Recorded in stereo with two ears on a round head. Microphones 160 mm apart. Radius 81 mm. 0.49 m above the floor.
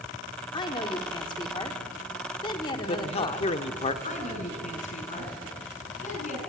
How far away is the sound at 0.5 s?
About 1.5 m.